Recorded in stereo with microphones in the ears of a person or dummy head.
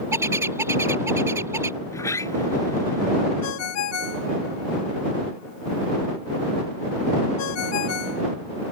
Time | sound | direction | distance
0.1 | a bird | 15° right (ahead or behind) | ?
1.8 | a sliding door | 15° left (ahead or behind) | ?
3.4 | a ringtone | 85° left | ?